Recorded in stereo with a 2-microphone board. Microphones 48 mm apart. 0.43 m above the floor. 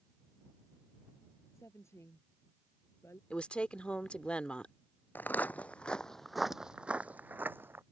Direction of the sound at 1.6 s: 70° left (ahead or behind).